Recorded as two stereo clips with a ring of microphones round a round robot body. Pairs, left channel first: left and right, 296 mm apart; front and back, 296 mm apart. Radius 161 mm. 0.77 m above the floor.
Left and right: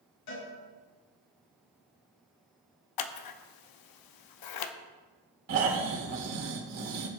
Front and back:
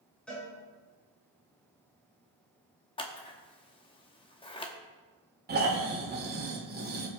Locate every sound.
0.3 s a cowbell: 85° left, 5.5 m
3.0 s scissors: 75° left, 0.8 m
5.5 s snoring: 120° right, 2.5 m